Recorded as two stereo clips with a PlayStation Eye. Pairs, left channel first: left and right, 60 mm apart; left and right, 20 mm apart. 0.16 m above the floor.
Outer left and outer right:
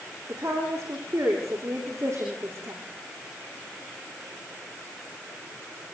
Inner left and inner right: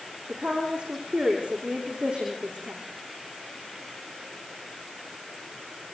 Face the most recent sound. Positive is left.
turn(degrees=-55)  # may be behind; listen again after turning